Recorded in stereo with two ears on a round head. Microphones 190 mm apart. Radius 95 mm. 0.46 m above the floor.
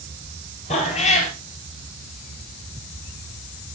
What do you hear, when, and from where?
0.7 s a cat meowing: 30° left (ahead or behind), 2.5 m